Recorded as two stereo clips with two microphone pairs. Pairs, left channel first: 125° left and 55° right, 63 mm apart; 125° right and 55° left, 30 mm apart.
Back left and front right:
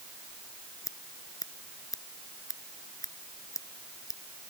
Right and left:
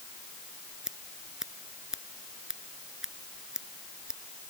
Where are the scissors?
130° left.